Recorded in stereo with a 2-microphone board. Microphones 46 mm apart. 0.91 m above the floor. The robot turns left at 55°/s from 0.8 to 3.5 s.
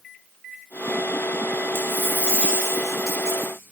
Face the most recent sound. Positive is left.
turn(degrees=-30)